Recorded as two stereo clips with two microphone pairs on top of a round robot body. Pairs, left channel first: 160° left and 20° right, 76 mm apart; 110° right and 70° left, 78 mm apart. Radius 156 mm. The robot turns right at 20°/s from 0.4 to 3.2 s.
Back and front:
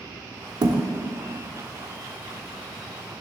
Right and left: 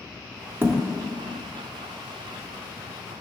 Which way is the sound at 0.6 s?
15° left.